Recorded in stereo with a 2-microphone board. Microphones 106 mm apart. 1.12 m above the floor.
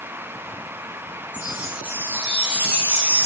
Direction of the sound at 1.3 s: 15° right (ahead or behind).